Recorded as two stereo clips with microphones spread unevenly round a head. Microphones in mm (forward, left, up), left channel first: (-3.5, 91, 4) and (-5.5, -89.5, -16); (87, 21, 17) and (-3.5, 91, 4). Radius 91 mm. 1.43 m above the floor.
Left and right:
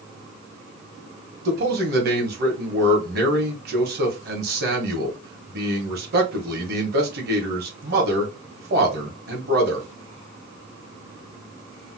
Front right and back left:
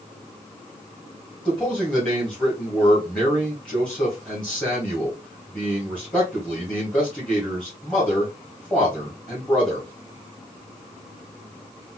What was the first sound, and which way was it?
A man speaking, 125° right.